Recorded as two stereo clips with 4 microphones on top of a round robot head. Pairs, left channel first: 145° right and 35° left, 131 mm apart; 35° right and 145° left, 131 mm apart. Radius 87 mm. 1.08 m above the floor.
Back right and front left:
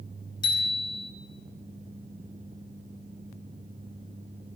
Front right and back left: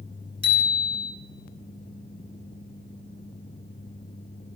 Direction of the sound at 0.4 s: 90° right.